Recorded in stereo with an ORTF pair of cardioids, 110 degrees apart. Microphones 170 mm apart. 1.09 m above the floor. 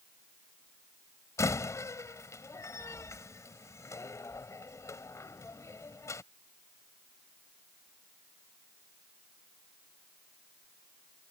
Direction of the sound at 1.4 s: 15° left.